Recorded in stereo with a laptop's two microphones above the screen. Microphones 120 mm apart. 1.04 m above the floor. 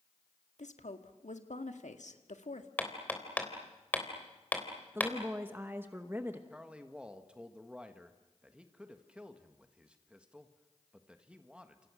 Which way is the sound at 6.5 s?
10° right (ahead or behind).